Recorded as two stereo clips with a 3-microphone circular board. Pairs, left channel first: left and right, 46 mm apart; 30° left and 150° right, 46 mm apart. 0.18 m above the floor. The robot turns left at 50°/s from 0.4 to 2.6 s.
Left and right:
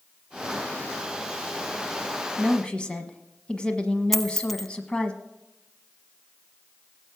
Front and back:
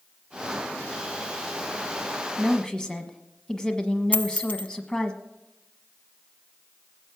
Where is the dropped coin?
5° left, 0.8 m.